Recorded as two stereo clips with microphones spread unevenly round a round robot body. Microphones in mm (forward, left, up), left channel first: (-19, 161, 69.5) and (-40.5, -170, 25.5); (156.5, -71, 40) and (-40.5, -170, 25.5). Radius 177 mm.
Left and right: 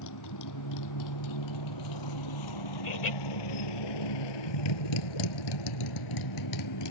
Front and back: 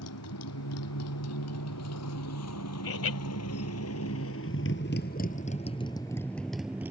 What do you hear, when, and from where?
0.0 s a motorcycle: 45° left; by 6.9 s 120° left
2.8 s laughter: 30° left